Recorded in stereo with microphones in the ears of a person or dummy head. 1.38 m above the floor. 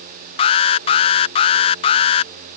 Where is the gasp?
I don't hear a gasp.